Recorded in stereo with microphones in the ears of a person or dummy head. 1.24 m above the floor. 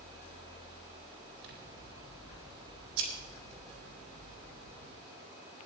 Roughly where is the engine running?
Right.